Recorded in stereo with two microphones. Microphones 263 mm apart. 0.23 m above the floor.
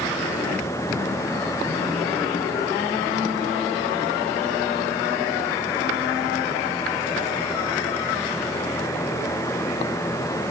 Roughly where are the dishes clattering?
No dishes clattering in this recording.